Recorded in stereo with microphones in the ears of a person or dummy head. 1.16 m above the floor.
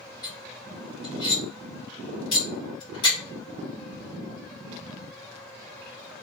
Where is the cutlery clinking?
25° left (ahead or behind), 1.9 m.